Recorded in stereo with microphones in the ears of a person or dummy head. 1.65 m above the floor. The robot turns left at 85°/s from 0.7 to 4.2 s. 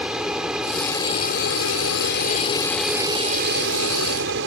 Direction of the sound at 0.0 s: Straight behind.